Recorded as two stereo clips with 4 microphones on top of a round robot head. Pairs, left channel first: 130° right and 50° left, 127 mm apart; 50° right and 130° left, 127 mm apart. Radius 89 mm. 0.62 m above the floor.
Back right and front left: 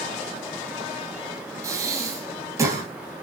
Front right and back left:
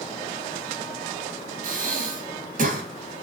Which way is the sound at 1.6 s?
115° left.